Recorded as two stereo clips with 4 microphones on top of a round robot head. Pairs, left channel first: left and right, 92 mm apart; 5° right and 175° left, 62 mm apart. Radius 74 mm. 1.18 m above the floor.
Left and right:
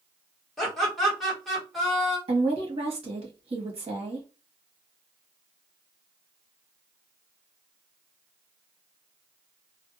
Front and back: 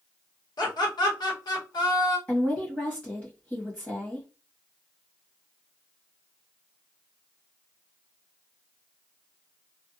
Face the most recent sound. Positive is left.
turn(degrees=-75)